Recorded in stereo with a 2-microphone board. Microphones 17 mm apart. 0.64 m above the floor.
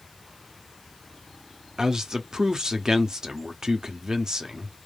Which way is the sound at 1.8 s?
45° right (ahead or behind).